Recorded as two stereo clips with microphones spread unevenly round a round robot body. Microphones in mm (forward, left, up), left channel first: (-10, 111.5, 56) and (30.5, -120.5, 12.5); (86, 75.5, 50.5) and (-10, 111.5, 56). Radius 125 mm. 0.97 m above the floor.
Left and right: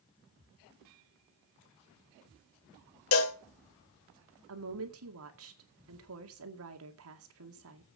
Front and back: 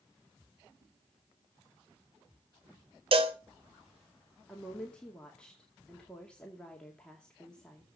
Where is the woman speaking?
105° right, 2.0 m.